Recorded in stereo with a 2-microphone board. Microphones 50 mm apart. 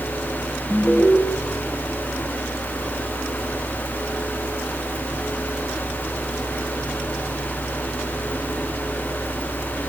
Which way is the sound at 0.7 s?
20° right (ahead or behind).